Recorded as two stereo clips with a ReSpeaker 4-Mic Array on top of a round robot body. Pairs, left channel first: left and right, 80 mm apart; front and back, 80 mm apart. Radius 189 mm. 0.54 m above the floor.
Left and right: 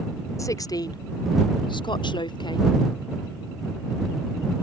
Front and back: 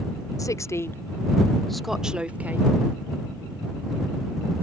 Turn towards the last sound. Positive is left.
turn(degrees=115)